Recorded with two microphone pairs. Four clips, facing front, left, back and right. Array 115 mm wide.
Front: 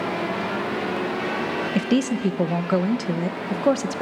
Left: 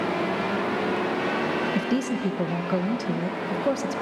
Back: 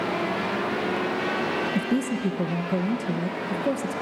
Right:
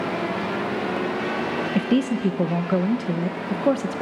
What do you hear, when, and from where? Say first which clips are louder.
1.8 s a woman speaking: right 4 dB, front 4 dB; 15° right, 1.0 m